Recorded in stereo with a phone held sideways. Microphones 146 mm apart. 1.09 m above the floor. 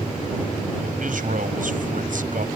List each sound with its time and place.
1.0 s a man speaking: 70° right (ahead or behind)